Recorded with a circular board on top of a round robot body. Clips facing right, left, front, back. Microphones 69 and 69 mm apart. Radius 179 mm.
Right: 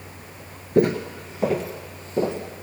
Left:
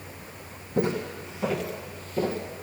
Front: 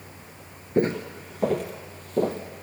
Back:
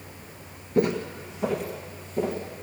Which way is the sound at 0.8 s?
60° right.